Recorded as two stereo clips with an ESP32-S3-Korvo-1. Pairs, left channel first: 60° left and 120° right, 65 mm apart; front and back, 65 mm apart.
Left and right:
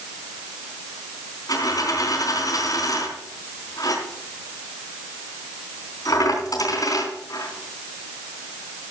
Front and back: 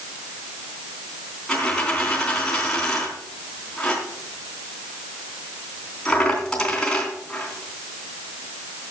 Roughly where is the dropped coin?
Left.